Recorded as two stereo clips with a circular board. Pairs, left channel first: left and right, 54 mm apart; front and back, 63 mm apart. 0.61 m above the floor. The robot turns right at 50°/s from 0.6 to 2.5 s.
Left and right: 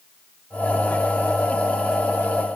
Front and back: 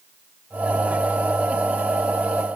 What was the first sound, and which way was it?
Only background noise.